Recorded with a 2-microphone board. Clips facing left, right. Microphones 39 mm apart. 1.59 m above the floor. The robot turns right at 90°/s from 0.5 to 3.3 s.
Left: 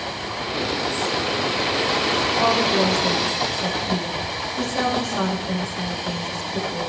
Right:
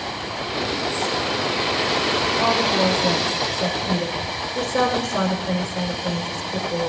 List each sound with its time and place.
2.4 s a woman speaking: 160° left, 6 m; by 6.9 s 120° right, 6 m